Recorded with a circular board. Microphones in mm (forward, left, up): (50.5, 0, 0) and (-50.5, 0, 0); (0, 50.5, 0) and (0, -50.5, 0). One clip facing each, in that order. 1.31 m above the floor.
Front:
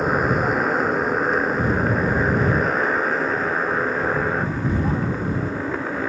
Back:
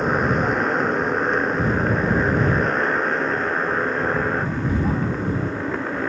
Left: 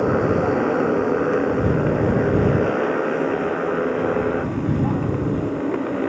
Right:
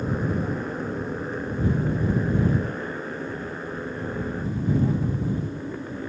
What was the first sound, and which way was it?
A motorcycle, 85° left.